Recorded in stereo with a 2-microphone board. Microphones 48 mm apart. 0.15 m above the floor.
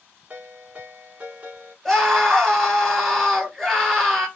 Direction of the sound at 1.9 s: 5° left (ahead or behind).